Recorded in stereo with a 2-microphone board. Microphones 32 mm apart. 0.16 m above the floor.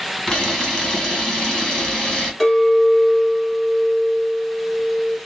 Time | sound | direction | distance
0.3 | a camera shutter | 25° left (ahead or behind) | 1.8 m
2.4 | a clink | 15° left (ahead or behind) | 1.5 m